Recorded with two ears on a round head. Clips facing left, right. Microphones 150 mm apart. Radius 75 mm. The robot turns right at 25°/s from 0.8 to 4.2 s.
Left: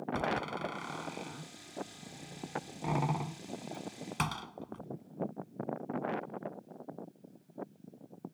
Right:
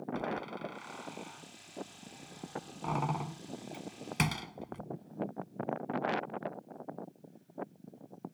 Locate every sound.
0.1 s a door slam: 65° left (ahead or behind); by 4.8 s 20° right (ahead or behind)